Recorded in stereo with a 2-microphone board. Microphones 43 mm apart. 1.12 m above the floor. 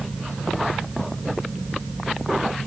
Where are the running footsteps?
I don't hear running footsteps.